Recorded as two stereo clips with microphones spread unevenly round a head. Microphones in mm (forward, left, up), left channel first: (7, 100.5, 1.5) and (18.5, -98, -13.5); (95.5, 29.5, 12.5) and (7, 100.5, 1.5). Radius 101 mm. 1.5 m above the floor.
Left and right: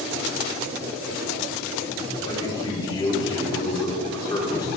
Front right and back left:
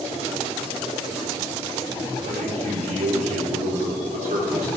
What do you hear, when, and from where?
2.2 s a man speaking: 165° left, 4.5 m